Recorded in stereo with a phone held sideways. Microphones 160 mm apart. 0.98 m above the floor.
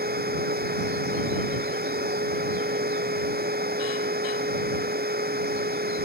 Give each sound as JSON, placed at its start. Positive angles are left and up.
{"t": 0.0, "sound": "a machine running", "side_deg": -75}